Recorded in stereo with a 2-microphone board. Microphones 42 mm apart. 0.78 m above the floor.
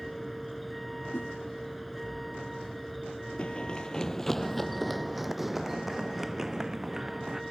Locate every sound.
0.0 s a vehicle: centre (ahead or behind)
1.1 s a whoosh: 70° left (ahead or behind)
3.4 s running footsteps: 30° left (ahead or behind); by 7.4 s 10° right (ahead or behind)